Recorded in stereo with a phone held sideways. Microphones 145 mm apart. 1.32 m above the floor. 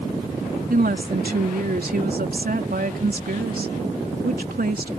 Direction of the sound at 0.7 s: 80° right.